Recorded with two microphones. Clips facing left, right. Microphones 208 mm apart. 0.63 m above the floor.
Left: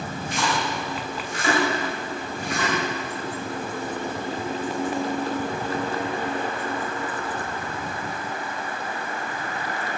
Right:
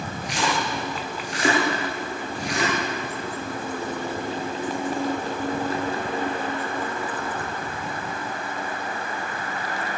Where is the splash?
85° right, 9 m.